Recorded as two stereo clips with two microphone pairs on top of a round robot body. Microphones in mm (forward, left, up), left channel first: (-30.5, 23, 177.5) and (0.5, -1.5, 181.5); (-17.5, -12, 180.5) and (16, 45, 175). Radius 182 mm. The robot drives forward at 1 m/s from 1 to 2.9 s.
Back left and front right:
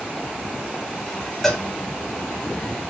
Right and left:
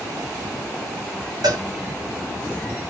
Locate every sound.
1.4 s a cowbell: 60° left, 3 m; by 1.6 s 65° left, 3 m